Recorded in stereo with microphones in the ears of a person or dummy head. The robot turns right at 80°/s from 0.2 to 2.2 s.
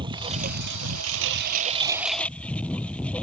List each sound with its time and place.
0.0 s a lawn mower: 155° right; by 3.2 s 5° left